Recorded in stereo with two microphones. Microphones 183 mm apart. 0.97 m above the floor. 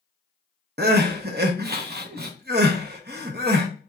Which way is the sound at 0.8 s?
60° right (ahead or behind).